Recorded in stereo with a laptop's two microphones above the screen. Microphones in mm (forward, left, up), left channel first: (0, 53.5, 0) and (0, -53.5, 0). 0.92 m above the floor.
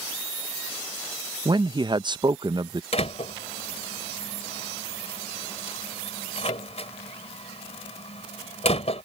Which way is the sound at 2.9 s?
70° left (ahead or behind).